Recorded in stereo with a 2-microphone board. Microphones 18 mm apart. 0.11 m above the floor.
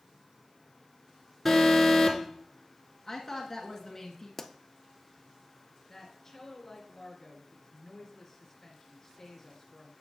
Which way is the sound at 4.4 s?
20° left (ahead or behind).